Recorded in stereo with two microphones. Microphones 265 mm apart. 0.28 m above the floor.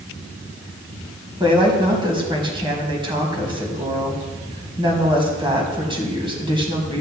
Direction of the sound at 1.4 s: 15° right (ahead or behind).